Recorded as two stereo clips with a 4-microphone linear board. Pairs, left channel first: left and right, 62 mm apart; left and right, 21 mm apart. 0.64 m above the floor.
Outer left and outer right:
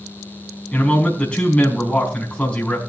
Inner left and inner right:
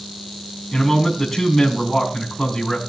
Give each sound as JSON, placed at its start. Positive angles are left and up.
{"t": 0.7, "sound": "a man speaking", "side_deg": 20, "distance_m": 4.5}